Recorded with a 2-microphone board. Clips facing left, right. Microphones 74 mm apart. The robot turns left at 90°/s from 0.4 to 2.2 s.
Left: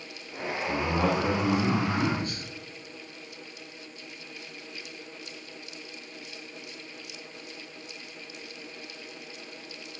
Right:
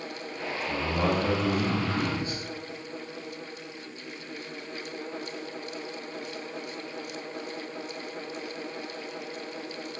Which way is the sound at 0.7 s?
70° left.